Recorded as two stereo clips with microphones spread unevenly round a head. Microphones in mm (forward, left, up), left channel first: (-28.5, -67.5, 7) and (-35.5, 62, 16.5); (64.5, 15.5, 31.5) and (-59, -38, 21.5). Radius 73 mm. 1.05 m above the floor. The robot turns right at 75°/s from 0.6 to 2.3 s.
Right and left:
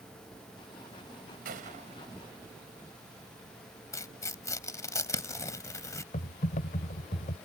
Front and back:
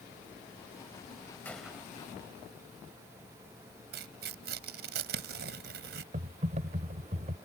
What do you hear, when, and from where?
1.4 s a gunshot: 100° left; by 2.5 s 165° left
3.9 s tearing paper: 155° right
6.1 s typing on a keyboard: 115° right